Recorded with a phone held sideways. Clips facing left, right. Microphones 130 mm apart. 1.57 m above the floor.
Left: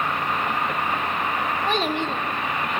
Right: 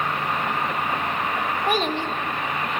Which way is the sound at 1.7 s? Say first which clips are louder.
Right 1 dB; 15° right (ahead or behind).